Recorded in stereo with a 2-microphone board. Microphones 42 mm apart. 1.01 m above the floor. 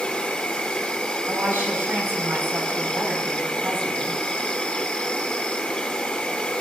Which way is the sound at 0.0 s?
25° left (ahead or behind).